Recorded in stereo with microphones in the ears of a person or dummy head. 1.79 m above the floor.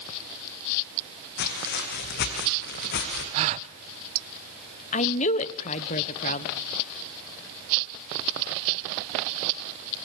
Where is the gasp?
35° right (ahead or behind), 1.0 m.